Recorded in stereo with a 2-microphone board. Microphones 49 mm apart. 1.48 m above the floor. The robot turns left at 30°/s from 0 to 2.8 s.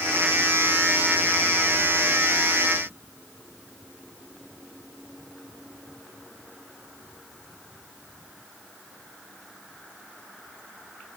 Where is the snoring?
I don't hear snoring.